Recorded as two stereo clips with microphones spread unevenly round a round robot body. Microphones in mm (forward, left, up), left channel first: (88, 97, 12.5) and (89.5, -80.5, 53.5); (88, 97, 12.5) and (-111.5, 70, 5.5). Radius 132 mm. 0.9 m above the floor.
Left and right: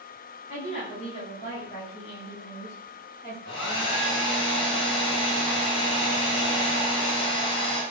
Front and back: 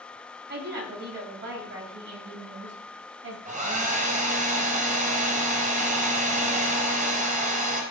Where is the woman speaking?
150° left, 5.5 m; by 3.4 s 165° left, 6.5 m.